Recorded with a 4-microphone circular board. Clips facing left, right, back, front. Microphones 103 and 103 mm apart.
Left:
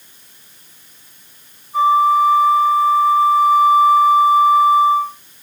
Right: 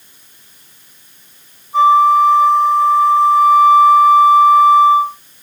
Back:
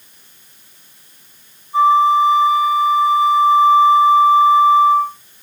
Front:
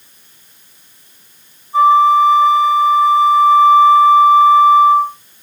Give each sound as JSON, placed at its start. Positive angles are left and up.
{"t": 1.7, "sound": "a flute", "azimuth_deg": -70, "distance_m": 2.0}